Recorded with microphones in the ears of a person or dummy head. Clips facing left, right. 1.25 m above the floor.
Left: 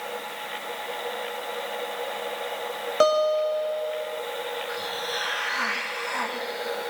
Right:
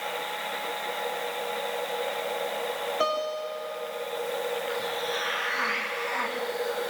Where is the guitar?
65° left (ahead or behind), 7 m.